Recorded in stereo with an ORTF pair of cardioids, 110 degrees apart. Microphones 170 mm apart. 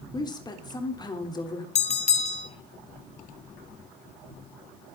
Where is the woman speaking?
25° left, 3.5 m.